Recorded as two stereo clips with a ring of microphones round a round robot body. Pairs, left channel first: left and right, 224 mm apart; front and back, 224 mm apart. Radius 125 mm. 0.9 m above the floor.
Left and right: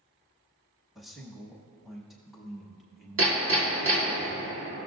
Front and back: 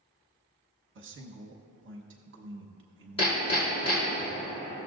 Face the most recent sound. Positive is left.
turn(degrees=-70)